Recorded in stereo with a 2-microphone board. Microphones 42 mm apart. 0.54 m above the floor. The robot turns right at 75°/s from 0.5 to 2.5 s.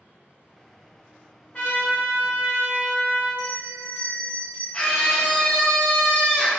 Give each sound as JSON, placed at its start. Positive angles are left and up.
{"t": 1.5, "sound": "a trumpet", "azimuth_deg": 60, "distance_m": 1.5}
{"t": 3.4, "sound": "a bell", "side_deg": -55, "distance_m": 1.5}
{"t": 4.7, "sound": "a scream", "side_deg": 15, "distance_m": 0.6}